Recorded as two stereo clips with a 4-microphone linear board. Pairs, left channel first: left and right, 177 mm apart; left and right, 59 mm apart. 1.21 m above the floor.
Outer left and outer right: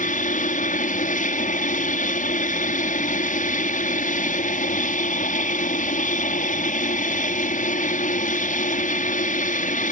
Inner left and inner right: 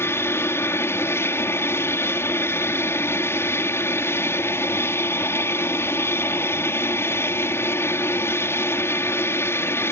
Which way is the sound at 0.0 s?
45° left (ahead or behind).